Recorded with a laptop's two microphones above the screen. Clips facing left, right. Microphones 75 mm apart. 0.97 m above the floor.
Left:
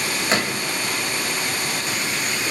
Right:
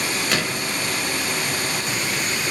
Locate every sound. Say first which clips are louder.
0.3 s a gunshot: left 1 dB; 25° left (ahead or behind), 2.5 m